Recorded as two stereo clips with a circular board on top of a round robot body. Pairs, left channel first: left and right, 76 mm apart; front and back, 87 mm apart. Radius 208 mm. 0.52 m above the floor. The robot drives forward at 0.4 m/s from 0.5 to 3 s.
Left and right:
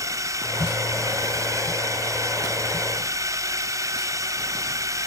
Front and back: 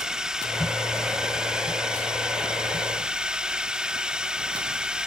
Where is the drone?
100° right; by 5.1 s 105° right.